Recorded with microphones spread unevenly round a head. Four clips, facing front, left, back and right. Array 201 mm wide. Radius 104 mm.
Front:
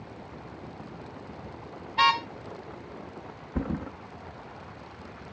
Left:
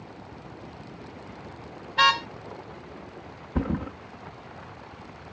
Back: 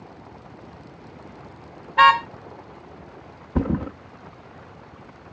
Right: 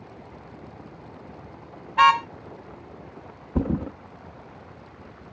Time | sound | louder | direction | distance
2.0 | a car horn | right 5 dB, back 9 dB | 175° left | ?
3.5 | a thud | right 3 dB, back 8 dB | 155° right | ?